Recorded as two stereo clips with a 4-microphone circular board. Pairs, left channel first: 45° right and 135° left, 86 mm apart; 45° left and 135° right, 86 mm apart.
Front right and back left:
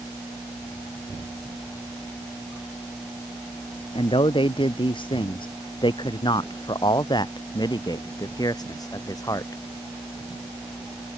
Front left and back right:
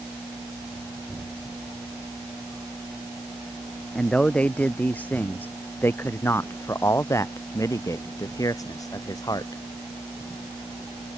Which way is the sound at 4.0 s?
35° right.